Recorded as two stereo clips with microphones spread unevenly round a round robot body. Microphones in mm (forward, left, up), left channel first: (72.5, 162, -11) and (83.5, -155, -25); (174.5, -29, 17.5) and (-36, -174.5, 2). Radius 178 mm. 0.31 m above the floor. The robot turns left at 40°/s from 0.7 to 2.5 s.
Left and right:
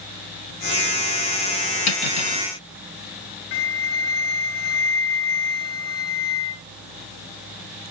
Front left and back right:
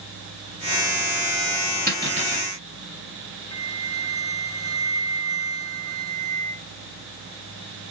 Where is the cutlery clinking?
115° left, 1.8 m; by 2.5 s 95° left, 1.8 m.